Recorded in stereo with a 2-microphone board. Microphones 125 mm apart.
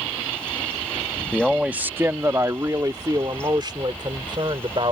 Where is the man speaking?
Centre (ahead or behind); by 4.9 s 40° right (ahead or behind).